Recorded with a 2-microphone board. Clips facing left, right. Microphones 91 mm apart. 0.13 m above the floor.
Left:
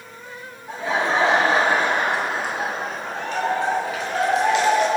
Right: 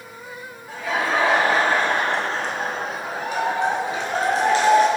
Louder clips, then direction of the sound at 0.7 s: Left 1 dB; 30° left (ahead or behind).